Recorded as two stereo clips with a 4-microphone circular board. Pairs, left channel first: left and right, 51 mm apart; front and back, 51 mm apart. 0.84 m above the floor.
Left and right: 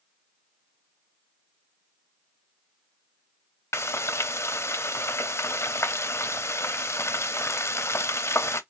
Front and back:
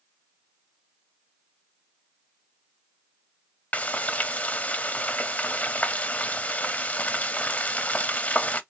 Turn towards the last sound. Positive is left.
turn(degrees=60)